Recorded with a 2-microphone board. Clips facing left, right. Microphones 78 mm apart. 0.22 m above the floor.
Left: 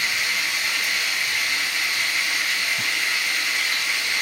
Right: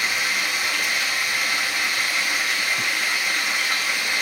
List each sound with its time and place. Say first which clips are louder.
0.0 s running water: right 1 dB; 55° right (ahead or behind), 1.8 m